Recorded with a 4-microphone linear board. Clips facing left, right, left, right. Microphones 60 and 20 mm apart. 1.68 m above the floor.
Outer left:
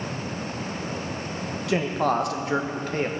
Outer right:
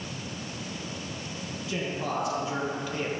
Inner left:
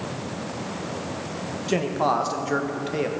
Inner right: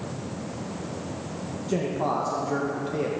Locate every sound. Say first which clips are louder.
1.7 s a man speaking: outer left 8 dB, inner left 4 dB; 65° left (ahead or behind), 1.3 m; by 3.1 s 40° left (ahead or behind), 1.1 m